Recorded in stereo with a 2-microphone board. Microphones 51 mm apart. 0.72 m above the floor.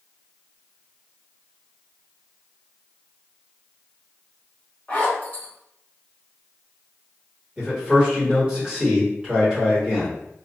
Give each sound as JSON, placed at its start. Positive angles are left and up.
{"t": 4.9, "sound": "a zipper", "side_deg": 30, "distance_m": 1.4}
{"t": 7.6, "sound": "a man speaking", "side_deg": -15, "distance_m": 1.8}